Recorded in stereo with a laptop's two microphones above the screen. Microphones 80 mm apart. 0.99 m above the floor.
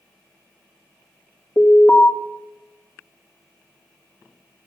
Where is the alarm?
35° left (ahead or behind), 2.5 m.